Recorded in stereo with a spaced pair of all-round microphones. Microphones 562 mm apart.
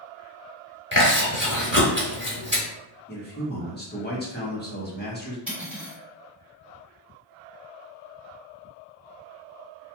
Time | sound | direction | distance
0.9 | chewing | 20° right (ahead or behind) | 0.9 m
3.1 | a man speaking | 20° left (ahead or behind) | 1.0 m
5.5 | cutlery clinking | centre (ahead or behind) | 1.7 m